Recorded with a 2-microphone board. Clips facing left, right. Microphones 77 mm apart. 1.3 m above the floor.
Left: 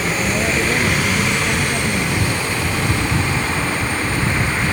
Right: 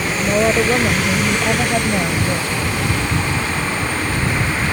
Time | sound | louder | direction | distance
0.2 | a woman speaking | right 7 dB | 55° right (ahead or behind) | ?